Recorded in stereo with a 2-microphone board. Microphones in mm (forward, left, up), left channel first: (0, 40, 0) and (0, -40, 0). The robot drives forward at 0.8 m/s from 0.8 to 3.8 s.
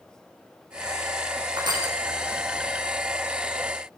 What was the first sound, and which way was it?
Crushing, 60° right (ahead or behind).